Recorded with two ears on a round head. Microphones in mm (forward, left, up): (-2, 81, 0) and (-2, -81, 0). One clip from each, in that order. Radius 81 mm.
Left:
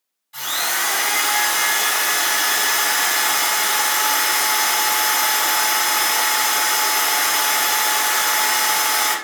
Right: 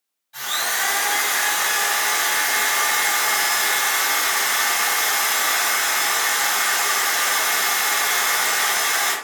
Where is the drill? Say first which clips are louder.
Left 1 dB; 20° left (ahead or behind), 1.5 m.